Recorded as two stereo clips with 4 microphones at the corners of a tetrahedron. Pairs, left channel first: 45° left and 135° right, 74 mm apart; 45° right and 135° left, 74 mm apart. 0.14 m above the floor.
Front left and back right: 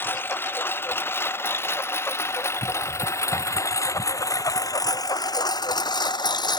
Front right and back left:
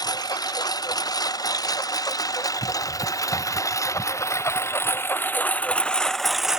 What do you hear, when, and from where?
0.0 s a lawn mower: 15° right; by 6.6 s 55° left